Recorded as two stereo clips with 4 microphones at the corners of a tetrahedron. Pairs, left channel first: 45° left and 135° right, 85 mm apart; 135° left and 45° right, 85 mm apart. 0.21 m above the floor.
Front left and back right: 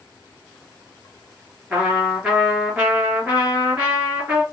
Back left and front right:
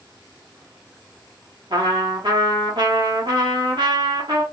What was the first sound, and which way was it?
A trumpet, 65° right.